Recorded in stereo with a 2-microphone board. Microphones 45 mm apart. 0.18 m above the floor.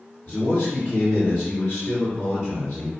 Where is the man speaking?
30° left (ahead or behind), 2 m.